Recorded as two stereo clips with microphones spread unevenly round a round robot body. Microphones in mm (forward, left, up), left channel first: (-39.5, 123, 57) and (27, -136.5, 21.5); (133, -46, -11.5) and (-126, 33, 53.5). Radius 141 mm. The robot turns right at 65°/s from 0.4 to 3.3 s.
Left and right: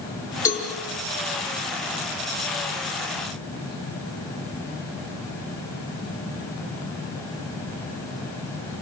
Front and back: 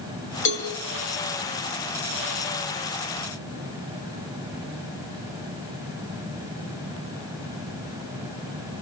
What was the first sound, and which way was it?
A cowbell, 25° left.